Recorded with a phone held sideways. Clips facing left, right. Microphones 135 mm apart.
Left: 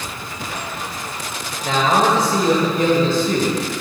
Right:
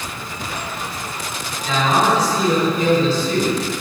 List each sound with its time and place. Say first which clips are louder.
1.6 s a man speaking: left 1 dB; 50° left (ahead or behind), 1.7 m